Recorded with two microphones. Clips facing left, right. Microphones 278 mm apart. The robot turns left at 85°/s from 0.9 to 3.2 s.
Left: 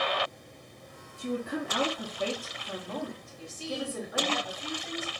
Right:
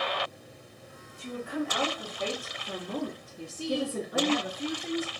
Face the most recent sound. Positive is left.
turn(degrees=-60)  # may be behind; listen again after turning